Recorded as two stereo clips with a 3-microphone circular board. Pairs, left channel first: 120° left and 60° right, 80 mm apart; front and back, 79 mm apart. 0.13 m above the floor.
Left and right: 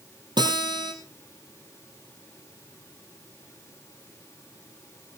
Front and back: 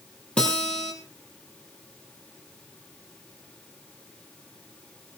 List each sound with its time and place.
0.4 s a guitar: 75° right, 5.5 m